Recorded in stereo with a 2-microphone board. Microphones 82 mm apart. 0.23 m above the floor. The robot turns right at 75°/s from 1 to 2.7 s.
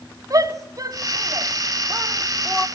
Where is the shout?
45° right (ahead or behind), 1.7 m; by 2.7 s 15° left (ahead or behind), 1.7 m.